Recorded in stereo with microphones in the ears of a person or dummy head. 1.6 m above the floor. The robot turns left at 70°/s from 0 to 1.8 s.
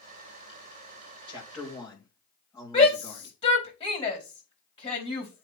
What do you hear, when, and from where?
1.3 s a man speaking: 170° right, 3.5 m; by 3.3 s 155° left, 3.5 m
2.7 s a shout: 35° left (ahead or behind), 4.5 m